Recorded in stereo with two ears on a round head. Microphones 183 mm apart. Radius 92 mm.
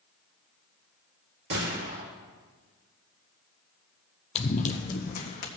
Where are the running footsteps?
30° left (ahead or behind), 0.8 m; by 5.5 s 45° left (ahead or behind), 1.7 m.